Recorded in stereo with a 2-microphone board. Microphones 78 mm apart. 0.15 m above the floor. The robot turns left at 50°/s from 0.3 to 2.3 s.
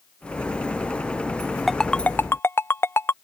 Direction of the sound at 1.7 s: Centre (ahead or behind).